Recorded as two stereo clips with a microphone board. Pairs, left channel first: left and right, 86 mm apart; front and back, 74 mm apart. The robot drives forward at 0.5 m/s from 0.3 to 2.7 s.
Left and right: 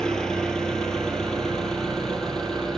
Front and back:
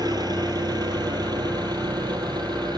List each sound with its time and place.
0.0 s an engine running: 170° left, 3 m; by 2.8 s 175° left, 4.5 m